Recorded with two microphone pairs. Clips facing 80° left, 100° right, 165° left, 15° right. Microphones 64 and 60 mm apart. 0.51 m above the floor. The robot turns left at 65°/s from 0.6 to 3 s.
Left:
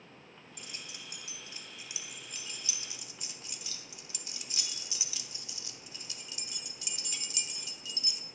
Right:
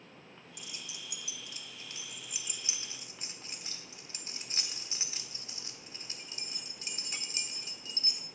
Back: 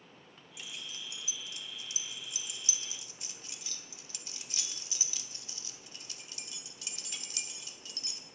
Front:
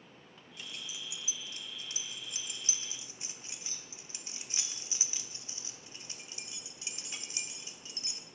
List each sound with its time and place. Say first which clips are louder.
0.6 s keys jangling: even, even; 90° left, 1.0 m; by 8.2 s 65° right, 1.0 m